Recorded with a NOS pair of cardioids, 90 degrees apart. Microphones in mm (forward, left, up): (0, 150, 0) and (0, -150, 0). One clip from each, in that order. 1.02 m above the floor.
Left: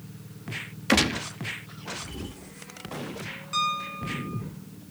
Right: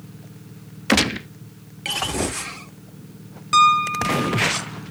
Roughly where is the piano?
Right.